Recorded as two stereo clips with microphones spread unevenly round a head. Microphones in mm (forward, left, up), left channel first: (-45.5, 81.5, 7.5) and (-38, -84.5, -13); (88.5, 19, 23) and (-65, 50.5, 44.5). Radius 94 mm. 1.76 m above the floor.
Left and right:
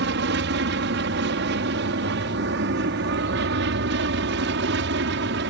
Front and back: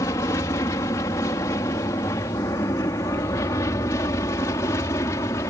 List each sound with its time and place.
0.0 s an aircraft: 85° right